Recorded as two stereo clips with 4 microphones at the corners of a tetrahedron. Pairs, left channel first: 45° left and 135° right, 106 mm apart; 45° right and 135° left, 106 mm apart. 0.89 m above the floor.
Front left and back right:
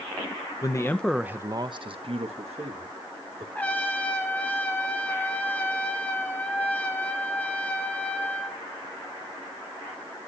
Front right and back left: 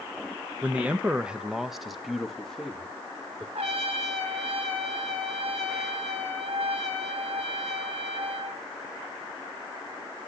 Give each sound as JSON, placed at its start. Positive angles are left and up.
{"t": 0.6, "sound": "a man speaking", "azimuth_deg": 70, "distance_m": 0.6}
{"t": 3.5, "sound": "a trumpet", "azimuth_deg": 120, "distance_m": 1.8}